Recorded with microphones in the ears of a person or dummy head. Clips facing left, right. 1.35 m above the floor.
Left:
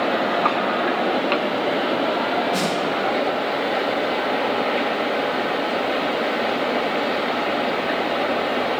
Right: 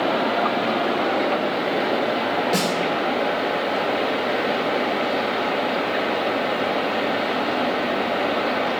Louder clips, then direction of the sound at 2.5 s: Even; 30° right (ahead or behind).